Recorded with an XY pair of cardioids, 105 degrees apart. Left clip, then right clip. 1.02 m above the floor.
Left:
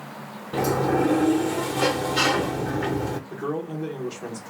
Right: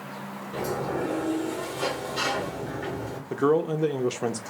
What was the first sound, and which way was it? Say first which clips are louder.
A sliding door: left 7 dB; 55° left.